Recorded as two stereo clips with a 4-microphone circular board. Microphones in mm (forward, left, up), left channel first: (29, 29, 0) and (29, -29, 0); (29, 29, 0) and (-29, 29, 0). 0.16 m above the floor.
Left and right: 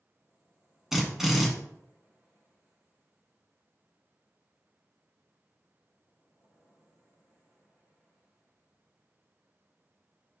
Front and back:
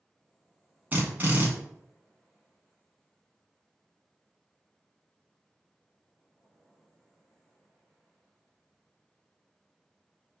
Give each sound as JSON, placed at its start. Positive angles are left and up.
{"t": 0.9, "sound": "a drill", "azimuth_deg": -170, "distance_m": 1.0}